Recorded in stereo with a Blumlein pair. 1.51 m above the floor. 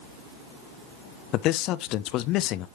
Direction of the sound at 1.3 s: 35° left.